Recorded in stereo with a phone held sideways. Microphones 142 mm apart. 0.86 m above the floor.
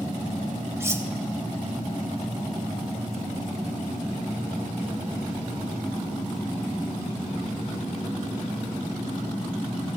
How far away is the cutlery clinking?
About 0.6 m.